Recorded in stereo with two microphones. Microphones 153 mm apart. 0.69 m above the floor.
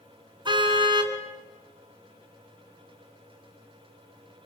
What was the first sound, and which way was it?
A car horn, 35° right (ahead or behind).